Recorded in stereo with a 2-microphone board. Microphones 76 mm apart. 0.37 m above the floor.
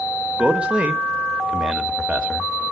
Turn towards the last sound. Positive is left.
turn(degrees=-15)  # may be behind; listen again after turning